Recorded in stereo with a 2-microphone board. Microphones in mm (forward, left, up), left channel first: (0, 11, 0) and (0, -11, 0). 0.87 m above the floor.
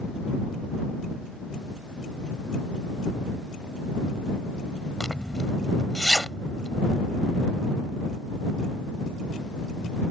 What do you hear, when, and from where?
5.0 s a zipper: 25° left (ahead or behind)